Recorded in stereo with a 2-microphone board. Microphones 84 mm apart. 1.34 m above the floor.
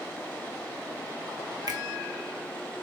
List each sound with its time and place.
1.7 s a finger snap: 55° right (ahead or behind), 0.8 m